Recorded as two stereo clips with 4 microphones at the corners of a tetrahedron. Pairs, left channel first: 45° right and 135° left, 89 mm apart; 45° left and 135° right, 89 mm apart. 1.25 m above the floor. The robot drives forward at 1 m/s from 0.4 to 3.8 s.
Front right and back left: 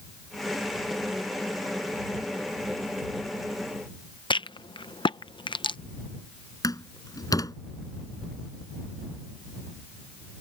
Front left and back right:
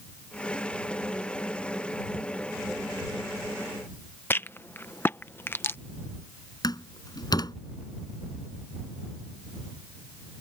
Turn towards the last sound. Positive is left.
turn(degrees=0)